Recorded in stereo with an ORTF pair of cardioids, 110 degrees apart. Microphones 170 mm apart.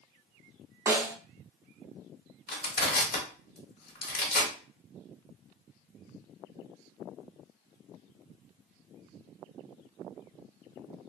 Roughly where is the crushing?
Ahead left.